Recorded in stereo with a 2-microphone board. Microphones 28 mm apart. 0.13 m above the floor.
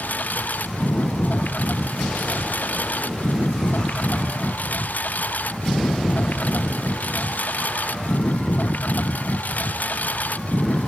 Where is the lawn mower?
75° left (ahead or behind); by 10.9 s 70° left (ahead or behind).